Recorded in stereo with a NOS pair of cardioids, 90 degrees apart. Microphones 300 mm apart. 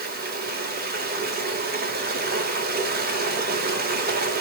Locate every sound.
0.0 s running water: 30° right, 4 m